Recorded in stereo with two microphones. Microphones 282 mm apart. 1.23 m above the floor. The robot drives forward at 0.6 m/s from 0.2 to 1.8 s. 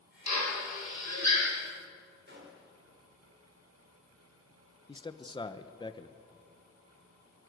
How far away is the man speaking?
About 1.0 m.